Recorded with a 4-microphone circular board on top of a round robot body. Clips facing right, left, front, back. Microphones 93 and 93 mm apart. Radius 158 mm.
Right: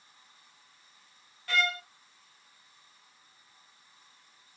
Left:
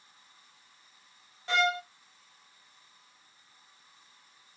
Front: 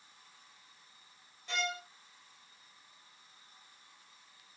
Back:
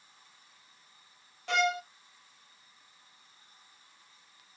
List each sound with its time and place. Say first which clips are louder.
1.5 s a violin: left 3 dB, back 9 dB; 160° left, 1.0 m